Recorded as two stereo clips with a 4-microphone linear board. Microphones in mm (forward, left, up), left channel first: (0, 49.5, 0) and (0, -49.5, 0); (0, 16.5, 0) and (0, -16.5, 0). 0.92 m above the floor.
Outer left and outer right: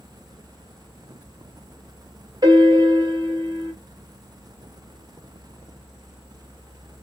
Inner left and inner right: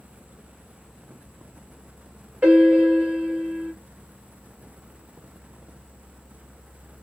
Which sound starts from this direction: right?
A piano, at 2.4 s.